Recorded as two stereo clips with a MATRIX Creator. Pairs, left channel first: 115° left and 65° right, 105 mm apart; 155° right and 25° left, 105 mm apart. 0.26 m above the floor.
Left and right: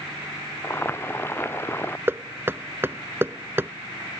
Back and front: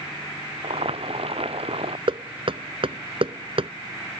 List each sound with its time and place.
0.6 s boiling: 45° left
2.1 s knocking: straight ahead